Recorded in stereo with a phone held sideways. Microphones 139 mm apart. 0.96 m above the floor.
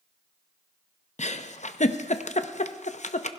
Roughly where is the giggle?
Left.